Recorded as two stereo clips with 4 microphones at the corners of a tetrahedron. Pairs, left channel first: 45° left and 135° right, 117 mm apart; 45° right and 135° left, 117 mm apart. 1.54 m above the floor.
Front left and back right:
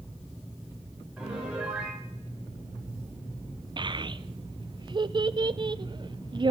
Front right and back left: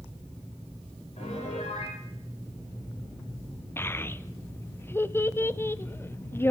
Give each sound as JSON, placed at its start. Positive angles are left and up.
{"t": 1.2, "sound": "a piano", "azimuth_deg": -55, "distance_m": 6.5}
{"t": 3.8, "sound": "a child speaking", "azimuth_deg": -110, "distance_m": 0.6}